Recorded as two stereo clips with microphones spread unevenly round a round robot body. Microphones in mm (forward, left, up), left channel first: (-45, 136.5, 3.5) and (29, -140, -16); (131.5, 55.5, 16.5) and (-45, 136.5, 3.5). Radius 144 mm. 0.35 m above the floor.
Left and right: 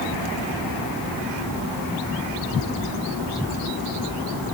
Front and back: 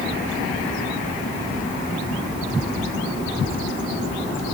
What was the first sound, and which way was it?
Only background noise.